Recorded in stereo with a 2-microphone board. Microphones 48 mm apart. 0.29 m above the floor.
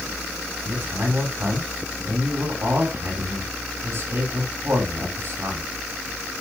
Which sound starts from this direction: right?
A man speaking, at 0.7 s.